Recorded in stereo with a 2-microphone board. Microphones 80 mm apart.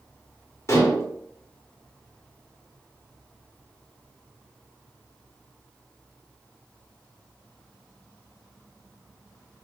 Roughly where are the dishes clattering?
Left.